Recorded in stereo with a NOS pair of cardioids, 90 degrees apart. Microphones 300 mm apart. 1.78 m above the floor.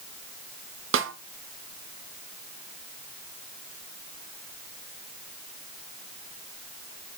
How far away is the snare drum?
About 1.3 m.